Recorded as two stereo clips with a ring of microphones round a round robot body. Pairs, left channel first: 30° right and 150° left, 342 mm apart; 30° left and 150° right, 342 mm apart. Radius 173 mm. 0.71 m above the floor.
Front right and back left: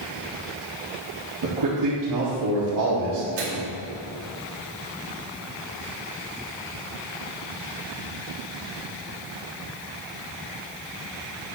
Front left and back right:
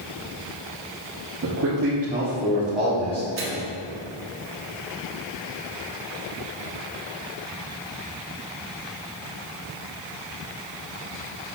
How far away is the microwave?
About 2.5 m.